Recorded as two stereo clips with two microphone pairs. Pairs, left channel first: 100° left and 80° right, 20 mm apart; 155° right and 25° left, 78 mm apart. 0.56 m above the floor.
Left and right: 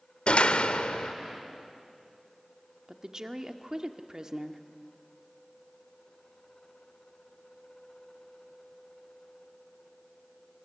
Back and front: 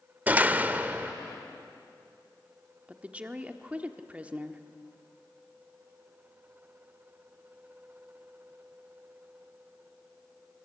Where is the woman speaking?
40° right, 1.4 m.